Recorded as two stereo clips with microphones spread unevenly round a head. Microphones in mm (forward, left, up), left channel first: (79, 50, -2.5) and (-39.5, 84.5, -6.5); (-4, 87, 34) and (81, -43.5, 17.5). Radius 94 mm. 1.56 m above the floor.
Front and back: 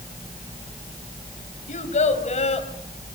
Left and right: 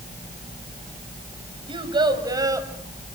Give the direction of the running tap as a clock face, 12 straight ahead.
No running tap in this recording.